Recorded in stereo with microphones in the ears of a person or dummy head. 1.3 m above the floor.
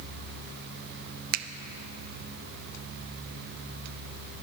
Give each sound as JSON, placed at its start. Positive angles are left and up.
{"t": 1.3, "sound": "a finger snap", "side_deg": -55, "distance_m": 0.7}